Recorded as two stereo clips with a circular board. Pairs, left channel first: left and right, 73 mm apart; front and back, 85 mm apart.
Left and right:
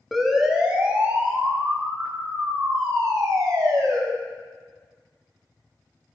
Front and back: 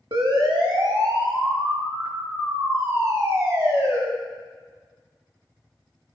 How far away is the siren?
About 2.5 m.